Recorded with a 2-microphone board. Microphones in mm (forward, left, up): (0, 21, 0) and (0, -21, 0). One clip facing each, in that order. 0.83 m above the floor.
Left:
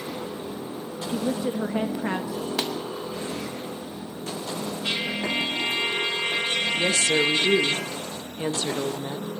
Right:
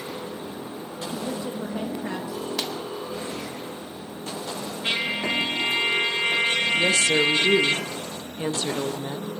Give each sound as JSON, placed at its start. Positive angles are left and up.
{"t": 1.1, "sound": "a woman speaking", "side_deg": 30, "distance_m": 1.1}
{"t": 2.6, "sound": "a pop", "side_deg": 15, "distance_m": 1.8}
{"t": 4.8, "sound": "a trumpet", "side_deg": -30, "distance_m": 3.5}
{"t": 6.8, "sound": "a woman speaking", "side_deg": -15, "distance_m": 0.8}